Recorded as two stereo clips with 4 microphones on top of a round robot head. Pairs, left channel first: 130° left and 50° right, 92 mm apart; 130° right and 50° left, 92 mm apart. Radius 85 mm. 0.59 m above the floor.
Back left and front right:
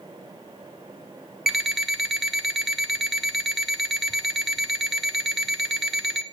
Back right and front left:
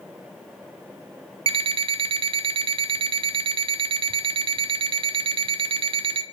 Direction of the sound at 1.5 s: 35° left.